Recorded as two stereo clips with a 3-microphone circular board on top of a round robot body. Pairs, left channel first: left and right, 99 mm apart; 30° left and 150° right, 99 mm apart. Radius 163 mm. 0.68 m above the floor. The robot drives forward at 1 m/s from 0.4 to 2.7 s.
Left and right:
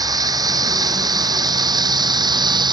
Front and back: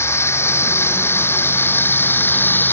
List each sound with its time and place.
0.0 s running water: 35° right; by 2.7 s 40° right